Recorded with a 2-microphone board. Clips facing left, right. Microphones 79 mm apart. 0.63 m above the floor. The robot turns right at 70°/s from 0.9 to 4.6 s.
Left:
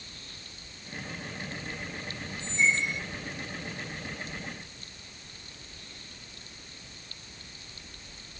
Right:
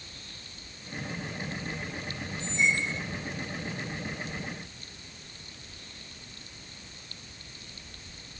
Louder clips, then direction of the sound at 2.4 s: Left 1 dB; 170° left.